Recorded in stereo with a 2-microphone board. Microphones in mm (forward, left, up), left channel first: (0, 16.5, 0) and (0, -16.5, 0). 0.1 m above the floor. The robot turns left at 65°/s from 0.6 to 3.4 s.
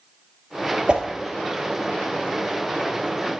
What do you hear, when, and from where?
0.9 s a whoosh: 30° right (ahead or behind), 1.0 m; by 1.1 s 20° right (ahead or behind), 1.0 m